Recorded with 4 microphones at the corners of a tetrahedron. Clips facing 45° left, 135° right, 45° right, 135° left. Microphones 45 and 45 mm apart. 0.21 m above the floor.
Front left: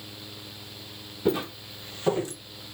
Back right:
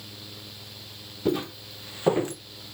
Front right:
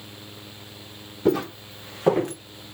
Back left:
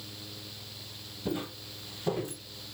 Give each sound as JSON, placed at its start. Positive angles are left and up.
{"t": 1.2, "sound": "footsteps", "azimuth_deg": -35, "distance_m": 1.2}